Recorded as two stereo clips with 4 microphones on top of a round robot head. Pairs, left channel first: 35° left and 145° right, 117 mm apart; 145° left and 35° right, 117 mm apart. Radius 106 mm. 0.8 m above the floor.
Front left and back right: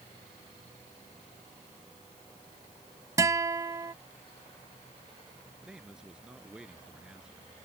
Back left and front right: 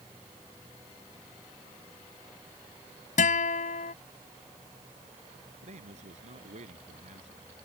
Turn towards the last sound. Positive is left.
turn(degrees=-60)